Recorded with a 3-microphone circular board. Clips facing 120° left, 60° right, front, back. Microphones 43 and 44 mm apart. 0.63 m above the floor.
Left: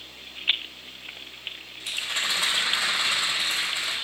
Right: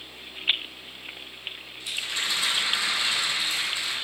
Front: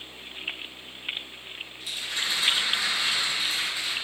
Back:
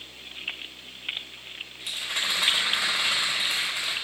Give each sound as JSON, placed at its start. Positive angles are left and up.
{"t": 1.8, "sound": "a rattle", "azimuth_deg": 155, "distance_m": 3.0}